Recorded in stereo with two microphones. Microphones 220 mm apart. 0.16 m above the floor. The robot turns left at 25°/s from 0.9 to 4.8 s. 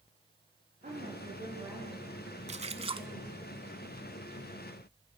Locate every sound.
0.8 s a woman speaking: 140° right, 6 m; by 3.5 s 155° left, 6 m
2.5 s a splash: 30° right (ahead or behind), 0.7 m; by 3.1 s 20° right (ahead or behind), 0.7 m